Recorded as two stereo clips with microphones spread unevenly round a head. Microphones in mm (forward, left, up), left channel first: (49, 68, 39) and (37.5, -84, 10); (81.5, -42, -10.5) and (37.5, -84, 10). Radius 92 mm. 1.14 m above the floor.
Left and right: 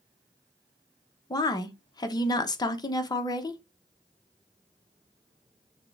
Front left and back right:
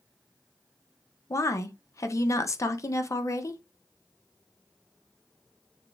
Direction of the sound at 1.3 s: 20° left.